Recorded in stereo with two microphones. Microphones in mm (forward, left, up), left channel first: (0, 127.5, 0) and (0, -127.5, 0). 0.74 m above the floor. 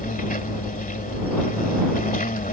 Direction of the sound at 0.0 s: 35° left (ahead or behind).